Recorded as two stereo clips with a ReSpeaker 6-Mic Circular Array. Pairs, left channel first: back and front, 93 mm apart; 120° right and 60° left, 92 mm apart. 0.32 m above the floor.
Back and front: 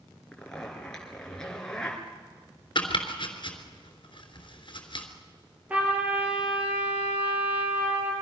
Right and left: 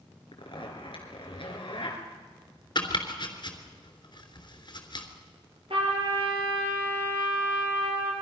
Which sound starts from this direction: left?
A trumpet, at 5.7 s.